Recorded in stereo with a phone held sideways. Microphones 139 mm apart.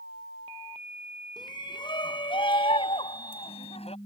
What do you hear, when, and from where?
1.4 s a shout: 30° left (ahead or behind); by 4.0 s 45° left (ahead or behind)